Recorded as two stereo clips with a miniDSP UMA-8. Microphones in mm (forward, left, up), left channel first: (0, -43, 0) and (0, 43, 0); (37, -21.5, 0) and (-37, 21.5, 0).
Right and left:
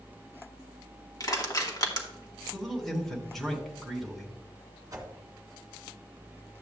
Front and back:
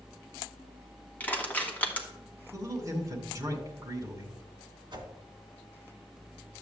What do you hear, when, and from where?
1.2 s crushing: 95° right, 1.7 m
2.5 s a man speaking: 175° right, 2 m
4.9 s a whoosh: 135° left, 2 m